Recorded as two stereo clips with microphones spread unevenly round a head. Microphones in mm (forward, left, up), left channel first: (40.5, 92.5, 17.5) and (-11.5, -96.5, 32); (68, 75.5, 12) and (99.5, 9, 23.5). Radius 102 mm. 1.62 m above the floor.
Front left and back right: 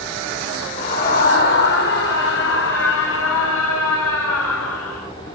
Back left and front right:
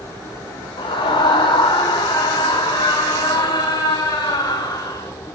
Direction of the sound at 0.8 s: 125° left.